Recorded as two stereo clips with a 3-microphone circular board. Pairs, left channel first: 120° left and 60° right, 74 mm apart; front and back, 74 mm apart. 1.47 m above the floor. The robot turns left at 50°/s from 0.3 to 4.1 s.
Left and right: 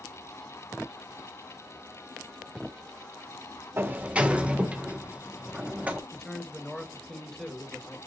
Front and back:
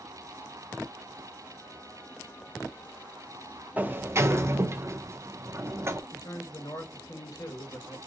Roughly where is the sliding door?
Behind right.